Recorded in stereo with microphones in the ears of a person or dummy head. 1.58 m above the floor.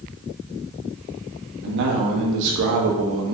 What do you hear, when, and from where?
1.6 s a man speaking: 65° right (ahead or behind), 2 m; by 3.3 s 70° right (ahead or behind), 1.5 m